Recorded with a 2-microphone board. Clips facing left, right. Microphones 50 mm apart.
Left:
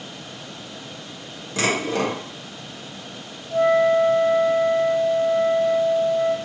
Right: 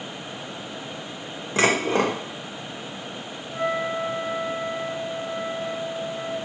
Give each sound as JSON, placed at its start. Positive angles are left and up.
{"t": 1.6, "sound": "dishes clattering", "side_deg": -30, "distance_m": 0.7}
{"t": 3.5, "sound": "a flute", "side_deg": 15, "distance_m": 1.6}